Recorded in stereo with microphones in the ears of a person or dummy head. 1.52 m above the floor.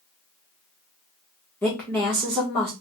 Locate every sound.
1.6 s a woman speaking: 5° left (ahead or behind), 1.2 m